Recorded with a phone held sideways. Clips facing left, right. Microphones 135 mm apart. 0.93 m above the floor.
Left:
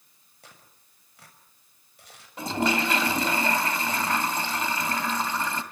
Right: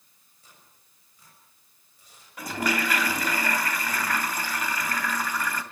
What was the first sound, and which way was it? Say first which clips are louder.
Tearing paper: left 5 dB; 75° left (ahead or behind).